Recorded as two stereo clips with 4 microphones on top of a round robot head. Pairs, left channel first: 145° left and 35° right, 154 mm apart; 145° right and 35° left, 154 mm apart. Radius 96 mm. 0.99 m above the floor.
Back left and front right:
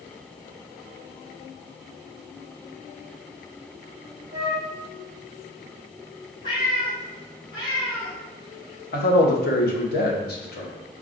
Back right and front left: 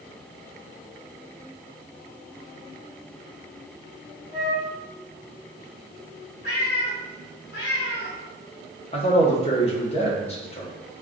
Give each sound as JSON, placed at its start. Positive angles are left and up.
{"t": 4.3, "sound": "a flute", "azimuth_deg": 0, "distance_m": 0.8}
{"t": 6.4, "sound": "a cat meowing", "azimuth_deg": -155, "distance_m": 0.7}
{"t": 8.9, "sound": "a man speaking", "azimuth_deg": 165, "distance_m": 0.9}